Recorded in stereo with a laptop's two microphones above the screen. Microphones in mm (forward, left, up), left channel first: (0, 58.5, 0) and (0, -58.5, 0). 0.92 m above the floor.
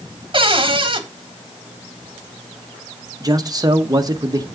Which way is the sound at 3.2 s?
35° right (ahead or behind).